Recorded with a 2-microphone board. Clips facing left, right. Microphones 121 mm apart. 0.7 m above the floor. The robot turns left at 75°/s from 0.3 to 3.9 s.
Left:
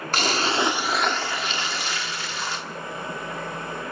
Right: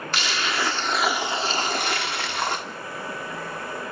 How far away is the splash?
About 1.5 m.